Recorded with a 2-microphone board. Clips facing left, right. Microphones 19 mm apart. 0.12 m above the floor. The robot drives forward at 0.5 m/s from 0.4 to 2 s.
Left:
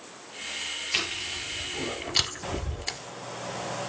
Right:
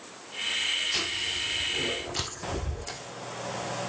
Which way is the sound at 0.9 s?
40° left (ahead or behind).